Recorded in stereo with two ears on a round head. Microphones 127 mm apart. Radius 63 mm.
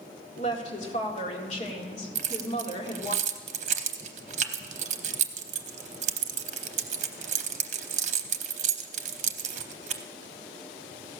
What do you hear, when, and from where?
0.4 s a woman speaking: 50° left (ahead or behind), 1.9 m
2.1 s keys jangling: 50° right (ahead or behind), 0.7 m